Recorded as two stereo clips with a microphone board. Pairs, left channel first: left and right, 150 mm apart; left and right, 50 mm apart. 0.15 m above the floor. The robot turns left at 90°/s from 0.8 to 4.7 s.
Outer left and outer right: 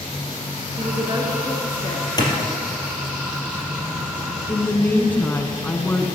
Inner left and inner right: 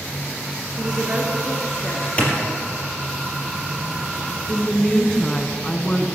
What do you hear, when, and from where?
0.8 s a woman speaking: 115° right, 3 m; by 2.1 s 130° left, 3 m
2.2 s a clap: 25° left (ahead or behind), 3.5 m; by 2.3 s 15° left (ahead or behind), 3.5 m
4.5 s a woman speaking: 15° left (ahead or behind), 1.1 m; by 6.1 s 10° left (ahead or behind), 1.1 m